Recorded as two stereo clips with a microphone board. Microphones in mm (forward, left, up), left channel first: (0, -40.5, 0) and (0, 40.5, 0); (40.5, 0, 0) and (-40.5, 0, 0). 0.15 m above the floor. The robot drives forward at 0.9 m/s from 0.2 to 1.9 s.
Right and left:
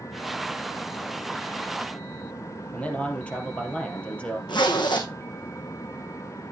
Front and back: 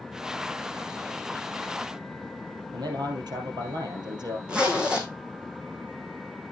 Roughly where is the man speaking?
Behind.